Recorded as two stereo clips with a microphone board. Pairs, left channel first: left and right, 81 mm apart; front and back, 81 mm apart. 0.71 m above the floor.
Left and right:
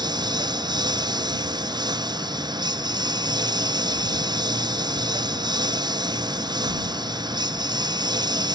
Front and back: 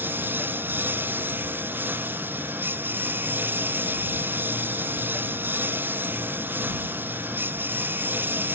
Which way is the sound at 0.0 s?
115° right.